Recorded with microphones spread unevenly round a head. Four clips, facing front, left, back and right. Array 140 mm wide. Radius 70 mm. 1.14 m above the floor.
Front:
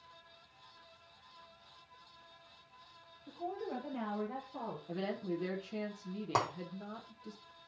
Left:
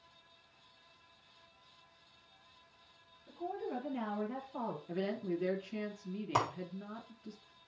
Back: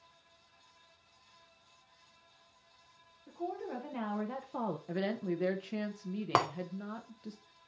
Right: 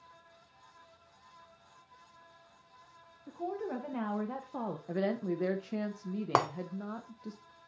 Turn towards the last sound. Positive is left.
turn(degrees=-125)